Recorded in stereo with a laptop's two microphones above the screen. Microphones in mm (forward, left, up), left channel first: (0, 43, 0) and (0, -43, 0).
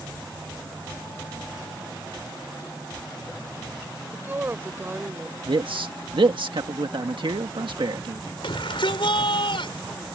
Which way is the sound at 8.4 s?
80° left.